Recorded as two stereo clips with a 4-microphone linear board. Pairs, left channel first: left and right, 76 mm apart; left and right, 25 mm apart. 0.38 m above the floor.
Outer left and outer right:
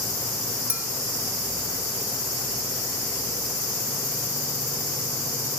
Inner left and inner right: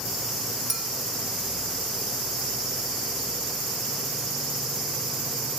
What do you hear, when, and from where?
0.7 s a clink: 20° right (ahead or behind), 0.8 m